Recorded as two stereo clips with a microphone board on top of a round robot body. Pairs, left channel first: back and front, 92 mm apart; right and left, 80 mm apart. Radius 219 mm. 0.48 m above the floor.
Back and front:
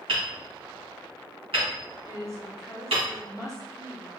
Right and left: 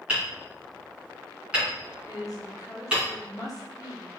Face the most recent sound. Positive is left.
turn(degrees=-50)